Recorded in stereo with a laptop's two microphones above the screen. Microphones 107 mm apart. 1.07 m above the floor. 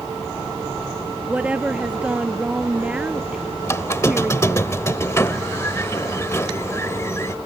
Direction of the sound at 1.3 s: 10° right (ahead or behind).